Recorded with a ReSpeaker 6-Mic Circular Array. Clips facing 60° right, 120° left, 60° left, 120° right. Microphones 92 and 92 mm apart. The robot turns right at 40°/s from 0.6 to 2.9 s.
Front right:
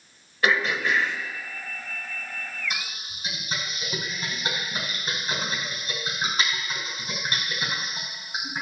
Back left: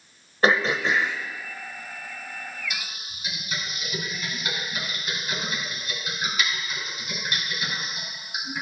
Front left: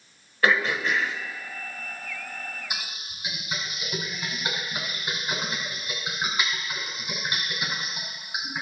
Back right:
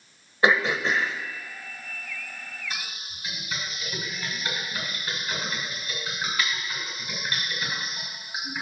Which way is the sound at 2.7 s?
15° right.